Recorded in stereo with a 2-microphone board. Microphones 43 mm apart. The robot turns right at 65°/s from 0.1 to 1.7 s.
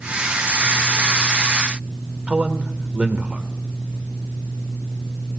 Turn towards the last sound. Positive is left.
turn(degrees=-30)  # may be behind; listen again after turning